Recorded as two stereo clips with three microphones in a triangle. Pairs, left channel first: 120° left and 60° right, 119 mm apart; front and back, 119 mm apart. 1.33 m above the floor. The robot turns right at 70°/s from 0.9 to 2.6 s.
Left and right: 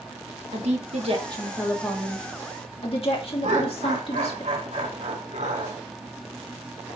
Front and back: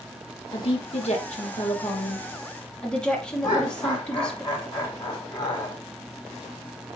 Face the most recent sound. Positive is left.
turn(degrees=-50)